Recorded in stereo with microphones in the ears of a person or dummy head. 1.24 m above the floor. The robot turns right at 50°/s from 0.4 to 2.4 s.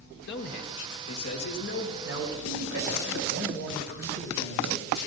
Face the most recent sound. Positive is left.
turn(degrees=-75)  # may be behind; listen again after turning